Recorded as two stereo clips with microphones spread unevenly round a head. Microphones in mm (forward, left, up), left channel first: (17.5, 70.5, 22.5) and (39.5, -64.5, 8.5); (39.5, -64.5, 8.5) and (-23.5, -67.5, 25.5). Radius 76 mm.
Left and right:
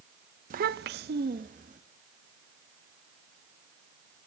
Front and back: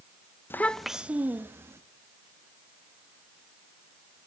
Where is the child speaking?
55° right, 0.7 m; by 1.8 s 125° right, 1.8 m.